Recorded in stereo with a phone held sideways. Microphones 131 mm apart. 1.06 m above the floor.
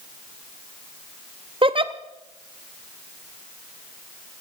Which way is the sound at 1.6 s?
40° right (ahead or behind).